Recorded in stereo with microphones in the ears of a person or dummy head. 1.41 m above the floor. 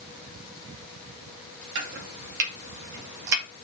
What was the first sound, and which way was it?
Chopping, 65° right (ahead or behind).